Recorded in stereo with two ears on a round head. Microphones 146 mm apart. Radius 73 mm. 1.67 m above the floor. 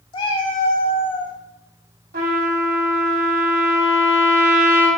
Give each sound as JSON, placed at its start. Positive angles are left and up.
{"t": 0.1, "sound": "a cat meowing", "side_deg": 30, "distance_m": 1.6}
{"t": 2.1, "sound": "a trumpet", "side_deg": -65, "distance_m": 3.5}